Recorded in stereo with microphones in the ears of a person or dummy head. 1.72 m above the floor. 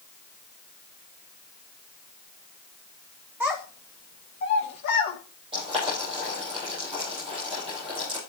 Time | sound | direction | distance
3.4 | a child speaking | 5° right (ahead or behind) | 0.9 m
5.5 | boiling | 25° right (ahead or behind) | 5 m